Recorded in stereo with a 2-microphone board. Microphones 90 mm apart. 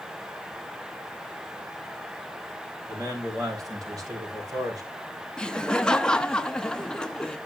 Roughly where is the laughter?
Centre.